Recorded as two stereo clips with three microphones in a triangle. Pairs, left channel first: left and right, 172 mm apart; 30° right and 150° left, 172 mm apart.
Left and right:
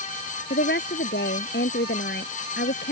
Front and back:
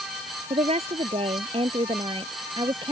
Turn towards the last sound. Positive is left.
turn(degrees=85)